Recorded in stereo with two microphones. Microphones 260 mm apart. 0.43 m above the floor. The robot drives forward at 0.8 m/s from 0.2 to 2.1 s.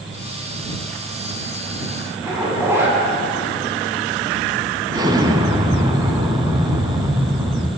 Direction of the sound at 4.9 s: 15° right (ahead or behind).